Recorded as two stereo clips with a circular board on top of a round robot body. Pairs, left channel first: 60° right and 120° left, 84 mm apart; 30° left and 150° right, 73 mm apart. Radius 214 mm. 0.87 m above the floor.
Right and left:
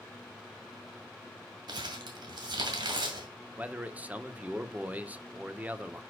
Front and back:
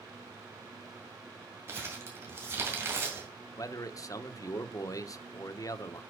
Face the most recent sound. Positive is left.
turn(degrees=50)